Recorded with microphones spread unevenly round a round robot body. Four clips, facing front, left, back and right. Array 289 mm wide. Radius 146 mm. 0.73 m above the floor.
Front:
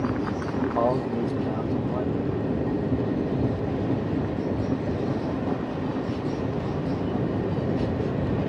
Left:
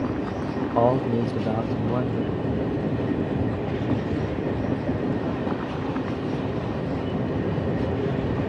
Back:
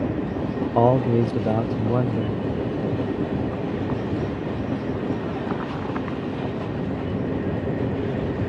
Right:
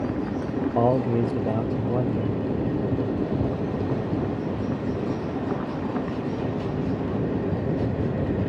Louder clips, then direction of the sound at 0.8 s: Left 1 dB, back 8 dB; 175° left.